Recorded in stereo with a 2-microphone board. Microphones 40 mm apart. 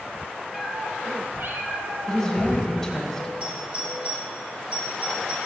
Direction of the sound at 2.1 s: 5° left (ahead or behind).